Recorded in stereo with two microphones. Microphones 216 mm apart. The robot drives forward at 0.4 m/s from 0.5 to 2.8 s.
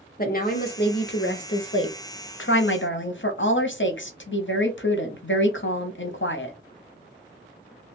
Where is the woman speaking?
45° left (ahead or behind), 1.0 m; by 6.6 s 70° left (ahead or behind), 0.8 m.